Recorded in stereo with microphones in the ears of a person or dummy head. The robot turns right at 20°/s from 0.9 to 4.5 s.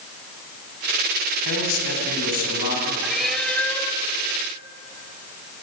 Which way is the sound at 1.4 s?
80° left.